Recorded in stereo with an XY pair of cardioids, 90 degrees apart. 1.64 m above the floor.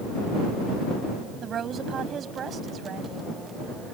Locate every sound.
1.4 s a woman speaking: 65° right